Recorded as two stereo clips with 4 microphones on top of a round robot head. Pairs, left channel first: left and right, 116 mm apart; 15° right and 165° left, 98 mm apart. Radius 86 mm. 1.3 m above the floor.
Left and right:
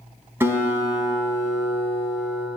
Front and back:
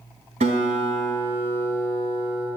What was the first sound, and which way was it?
A guitar, 160° right.